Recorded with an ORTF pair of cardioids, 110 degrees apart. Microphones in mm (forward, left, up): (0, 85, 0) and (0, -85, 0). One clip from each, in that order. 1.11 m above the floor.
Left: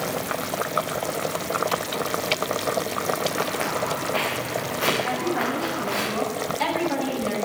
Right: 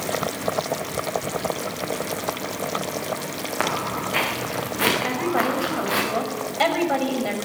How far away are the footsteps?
About 6.5 m.